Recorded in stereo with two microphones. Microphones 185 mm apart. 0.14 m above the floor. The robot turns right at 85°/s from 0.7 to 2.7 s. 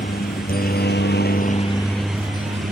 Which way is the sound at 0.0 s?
55° left (ahead or behind).